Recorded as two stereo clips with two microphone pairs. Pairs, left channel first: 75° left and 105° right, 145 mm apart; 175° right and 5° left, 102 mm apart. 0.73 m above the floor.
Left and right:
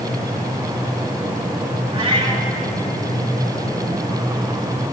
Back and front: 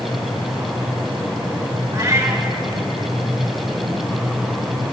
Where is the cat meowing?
50° right, 1.6 m.